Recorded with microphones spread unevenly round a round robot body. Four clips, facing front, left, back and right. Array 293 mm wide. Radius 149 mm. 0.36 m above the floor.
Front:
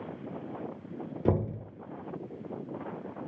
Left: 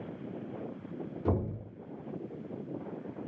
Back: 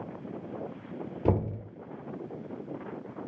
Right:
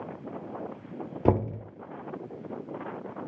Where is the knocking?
95° right, 0.7 m.